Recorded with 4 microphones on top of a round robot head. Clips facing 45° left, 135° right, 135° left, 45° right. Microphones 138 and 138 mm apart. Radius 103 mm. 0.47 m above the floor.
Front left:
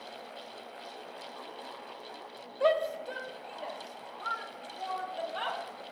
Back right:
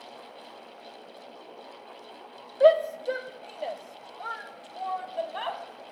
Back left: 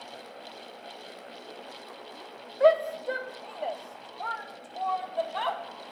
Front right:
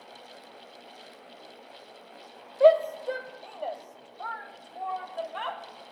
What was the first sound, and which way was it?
A shout, 110° right.